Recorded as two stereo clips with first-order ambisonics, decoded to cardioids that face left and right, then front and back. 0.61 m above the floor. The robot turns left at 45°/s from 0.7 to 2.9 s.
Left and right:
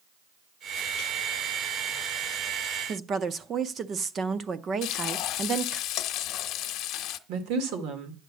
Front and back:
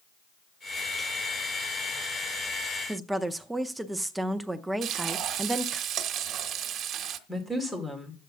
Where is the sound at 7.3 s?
90° right, 2 m.